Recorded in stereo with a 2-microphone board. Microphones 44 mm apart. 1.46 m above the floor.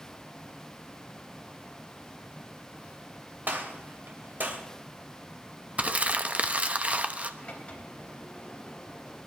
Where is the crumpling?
35° right (ahead or behind), 0.8 m.